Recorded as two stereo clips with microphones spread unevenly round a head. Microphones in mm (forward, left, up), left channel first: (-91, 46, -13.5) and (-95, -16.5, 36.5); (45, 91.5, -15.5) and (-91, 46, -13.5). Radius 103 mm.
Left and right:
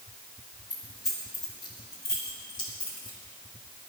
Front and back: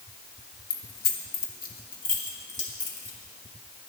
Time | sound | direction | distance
0.7 | keys jangling | 5° left | 1.3 m